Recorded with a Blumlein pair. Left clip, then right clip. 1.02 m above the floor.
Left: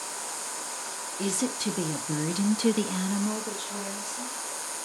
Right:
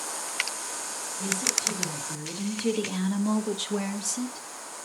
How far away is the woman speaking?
About 1.6 m.